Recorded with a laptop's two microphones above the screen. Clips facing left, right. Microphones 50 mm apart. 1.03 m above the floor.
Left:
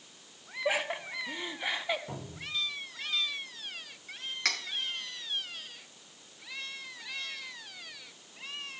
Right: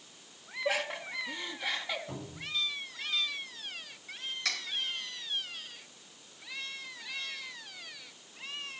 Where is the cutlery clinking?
55° left (ahead or behind), 2 m.